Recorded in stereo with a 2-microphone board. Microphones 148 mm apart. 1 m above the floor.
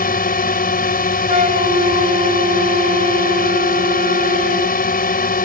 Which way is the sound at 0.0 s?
85° left.